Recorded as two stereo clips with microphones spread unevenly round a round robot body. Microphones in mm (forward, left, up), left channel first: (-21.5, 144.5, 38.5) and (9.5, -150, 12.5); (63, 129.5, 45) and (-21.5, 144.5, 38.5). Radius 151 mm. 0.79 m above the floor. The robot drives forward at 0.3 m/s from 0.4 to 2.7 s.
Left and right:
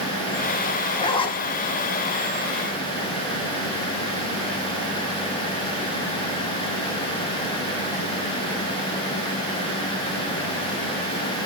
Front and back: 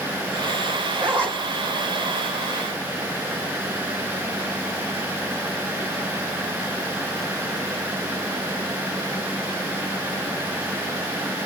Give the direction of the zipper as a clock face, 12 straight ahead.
6 o'clock.